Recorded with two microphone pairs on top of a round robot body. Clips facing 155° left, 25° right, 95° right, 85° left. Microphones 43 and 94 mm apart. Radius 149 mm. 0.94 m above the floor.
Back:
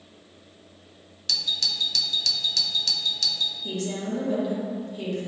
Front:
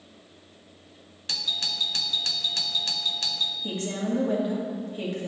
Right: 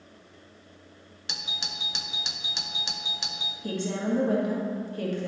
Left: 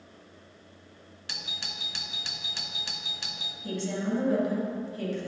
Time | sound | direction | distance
1.3 | a doorbell | 75° right | 0.7 m
3.6 | a woman speaking | 80° right | 1.9 m